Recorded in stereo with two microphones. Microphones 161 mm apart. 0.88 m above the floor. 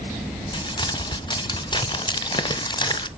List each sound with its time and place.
0.5 s crumpling: 30° left (ahead or behind), 0.8 m